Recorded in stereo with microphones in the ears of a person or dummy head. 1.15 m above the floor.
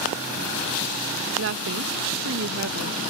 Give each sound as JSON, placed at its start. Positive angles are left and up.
{"t": 1.4, "sound": "a woman speaking", "side_deg": -60}